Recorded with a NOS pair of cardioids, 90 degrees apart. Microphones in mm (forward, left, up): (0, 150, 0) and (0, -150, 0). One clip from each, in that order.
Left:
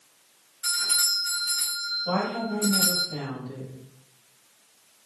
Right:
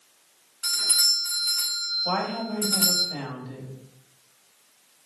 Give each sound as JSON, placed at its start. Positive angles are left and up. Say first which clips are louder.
{"t": 0.6, "sound": "a doorbell", "louder": "right 3 dB", "azimuth_deg": -50, "distance_m": 1.7}
{"t": 2.0, "sound": "a woman speaking", "louder": "even", "azimuth_deg": -45, "distance_m": 2.0}